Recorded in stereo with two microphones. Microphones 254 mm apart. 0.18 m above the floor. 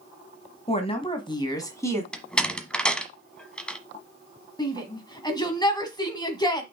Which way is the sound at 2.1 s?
5° left (ahead or behind).